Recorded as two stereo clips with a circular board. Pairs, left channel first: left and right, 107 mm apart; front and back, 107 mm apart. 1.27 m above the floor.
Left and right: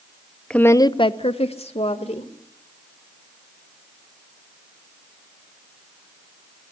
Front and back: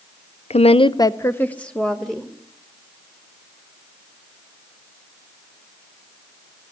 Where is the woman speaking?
5° left, 0.6 m; by 2.3 s 90° left, 1.7 m.